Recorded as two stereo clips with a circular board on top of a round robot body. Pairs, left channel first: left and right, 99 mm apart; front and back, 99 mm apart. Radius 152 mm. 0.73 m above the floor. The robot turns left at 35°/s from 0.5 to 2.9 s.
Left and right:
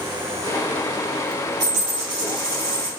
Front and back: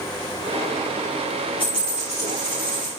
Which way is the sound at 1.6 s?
40° right.